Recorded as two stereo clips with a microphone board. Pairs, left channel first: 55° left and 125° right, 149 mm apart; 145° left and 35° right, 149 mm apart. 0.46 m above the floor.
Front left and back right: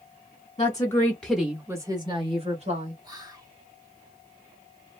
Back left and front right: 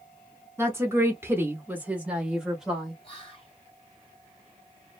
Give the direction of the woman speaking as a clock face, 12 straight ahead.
11 o'clock.